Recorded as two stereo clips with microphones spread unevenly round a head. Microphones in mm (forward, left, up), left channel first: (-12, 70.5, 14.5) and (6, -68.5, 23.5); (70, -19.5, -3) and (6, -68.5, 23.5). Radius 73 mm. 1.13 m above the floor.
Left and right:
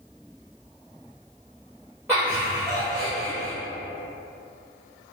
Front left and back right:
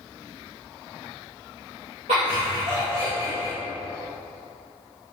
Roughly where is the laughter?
Behind.